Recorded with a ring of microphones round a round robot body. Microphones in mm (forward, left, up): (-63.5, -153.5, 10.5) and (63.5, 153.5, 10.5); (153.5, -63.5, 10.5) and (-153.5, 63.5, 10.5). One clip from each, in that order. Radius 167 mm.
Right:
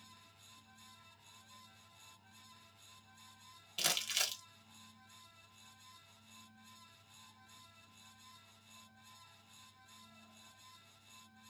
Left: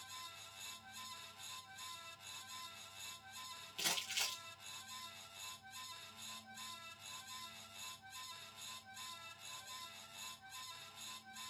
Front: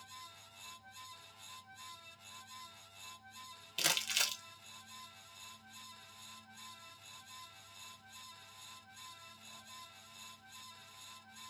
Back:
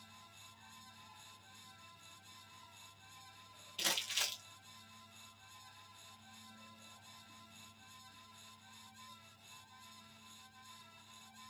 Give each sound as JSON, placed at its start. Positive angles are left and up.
{"t": 3.8, "sound": "crumpling", "azimuth_deg": -50, "distance_m": 1.1}